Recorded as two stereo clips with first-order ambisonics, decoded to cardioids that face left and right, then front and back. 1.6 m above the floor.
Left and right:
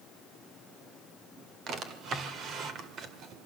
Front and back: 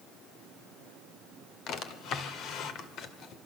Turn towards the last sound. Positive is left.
turn(degrees=-40)